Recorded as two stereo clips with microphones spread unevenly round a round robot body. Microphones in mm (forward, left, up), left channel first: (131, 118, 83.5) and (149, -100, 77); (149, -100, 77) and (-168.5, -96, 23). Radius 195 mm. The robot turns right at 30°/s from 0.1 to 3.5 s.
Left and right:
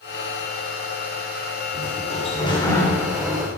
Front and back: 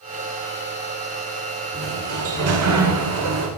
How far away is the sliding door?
About 2.5 m.